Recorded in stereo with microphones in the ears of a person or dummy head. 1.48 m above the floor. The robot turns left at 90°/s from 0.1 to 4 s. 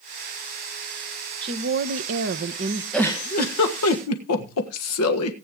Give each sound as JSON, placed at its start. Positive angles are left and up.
{"t": 1.4, "sound": "a woman speaking", "azimuth_deg": -30, "distance_m": 1.0}
{"t": 2.9, "sound": "a giggle", "azimuth_deg": 180, "distance_m": 1.6}